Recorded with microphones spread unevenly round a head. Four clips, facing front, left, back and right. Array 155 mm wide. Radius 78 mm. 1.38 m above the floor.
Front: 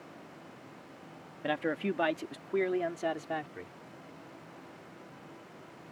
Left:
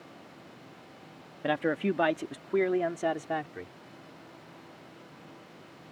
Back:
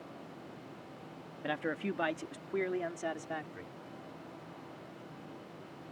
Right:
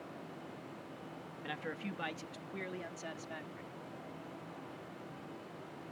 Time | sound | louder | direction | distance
1.4 | a man speaking | left 15 dB, front 4 dB | 70° left | ?